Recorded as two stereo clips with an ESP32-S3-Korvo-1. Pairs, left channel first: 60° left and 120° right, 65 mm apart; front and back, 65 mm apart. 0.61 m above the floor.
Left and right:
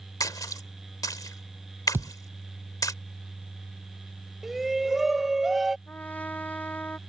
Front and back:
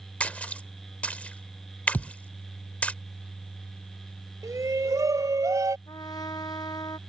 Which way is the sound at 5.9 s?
5° right.